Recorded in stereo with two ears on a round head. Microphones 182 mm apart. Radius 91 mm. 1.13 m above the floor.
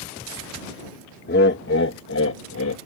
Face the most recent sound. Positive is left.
turn(degrees=80)